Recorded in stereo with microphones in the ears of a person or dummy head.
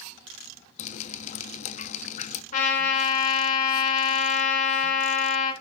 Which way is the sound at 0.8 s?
45° left (ahead or behind).